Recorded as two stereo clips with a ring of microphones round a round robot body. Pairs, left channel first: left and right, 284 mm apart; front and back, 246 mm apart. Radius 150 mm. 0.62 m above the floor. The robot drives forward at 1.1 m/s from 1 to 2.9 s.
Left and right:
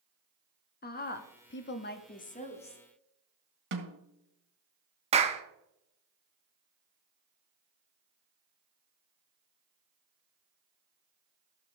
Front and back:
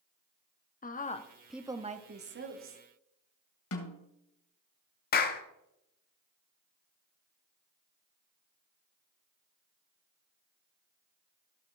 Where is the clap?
30° right, 1.1 m.